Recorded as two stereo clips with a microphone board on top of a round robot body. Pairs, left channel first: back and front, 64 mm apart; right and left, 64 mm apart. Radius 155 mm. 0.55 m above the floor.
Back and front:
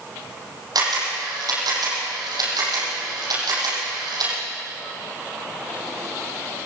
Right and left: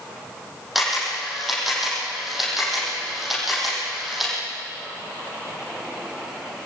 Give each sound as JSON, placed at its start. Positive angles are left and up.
{"t": 0.8, "sound": "a camera shutter", "azimuth_deg": 0, "distance_m": 8.0}